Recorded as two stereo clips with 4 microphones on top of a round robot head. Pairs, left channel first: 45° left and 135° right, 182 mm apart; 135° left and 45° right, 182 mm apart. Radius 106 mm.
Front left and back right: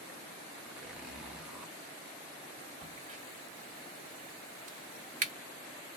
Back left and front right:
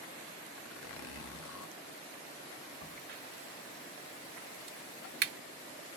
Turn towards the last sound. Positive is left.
turn(degrees=-85)